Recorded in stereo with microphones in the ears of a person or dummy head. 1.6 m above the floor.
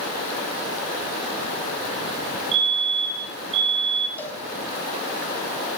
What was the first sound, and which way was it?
A fire alarm, 35° right (ahead or behind).